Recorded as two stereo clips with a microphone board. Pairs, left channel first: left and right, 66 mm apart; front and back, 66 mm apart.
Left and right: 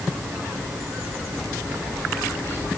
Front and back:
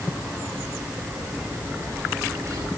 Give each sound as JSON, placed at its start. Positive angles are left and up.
{"t": 0.6, "sound": "a bird", "azimuth_deg": 145, "distance_m": 8.0}